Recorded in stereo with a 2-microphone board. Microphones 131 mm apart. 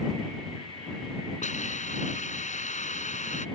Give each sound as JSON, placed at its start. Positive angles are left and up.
{"t": 1.4, "sound": "a hiss", "side_deg": 70}